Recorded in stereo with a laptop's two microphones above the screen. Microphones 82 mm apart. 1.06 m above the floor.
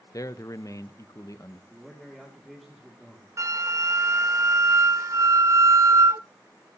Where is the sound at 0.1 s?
45° left (ahead or behind), 1.0 m.